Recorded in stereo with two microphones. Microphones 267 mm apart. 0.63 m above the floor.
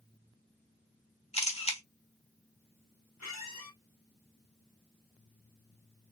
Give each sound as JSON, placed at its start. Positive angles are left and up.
{"t": 1.3, "sound": "a camera shutter", "side_deg": 20, "distance_m": 0.9}
{"t": 3.2, "sound": "a squeak", "side_deg": 70, "distance_m": 1.1}